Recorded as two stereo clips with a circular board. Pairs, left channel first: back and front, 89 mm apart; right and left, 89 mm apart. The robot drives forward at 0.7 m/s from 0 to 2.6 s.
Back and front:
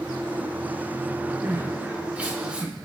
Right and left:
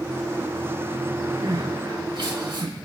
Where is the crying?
65° left, 4 m; by 2.7 s 80° left, 3.5 m.